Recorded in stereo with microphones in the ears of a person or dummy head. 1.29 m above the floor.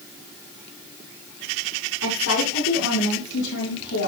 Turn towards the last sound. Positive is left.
turn(degrees=70)  # may be behind; listen again after turning